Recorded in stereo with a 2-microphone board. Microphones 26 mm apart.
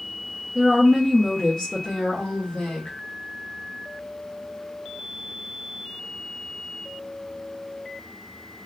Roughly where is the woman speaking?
Right.